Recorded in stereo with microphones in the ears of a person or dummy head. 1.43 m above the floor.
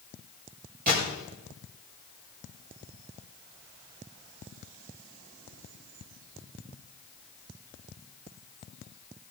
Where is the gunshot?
45° right (ahead or behind), 6 m.